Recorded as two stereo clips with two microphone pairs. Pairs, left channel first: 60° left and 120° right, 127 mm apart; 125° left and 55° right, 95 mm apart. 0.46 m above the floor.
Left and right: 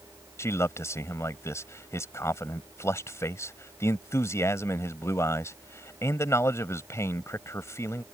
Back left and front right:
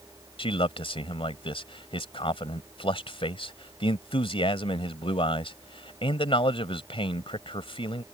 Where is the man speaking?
125° left.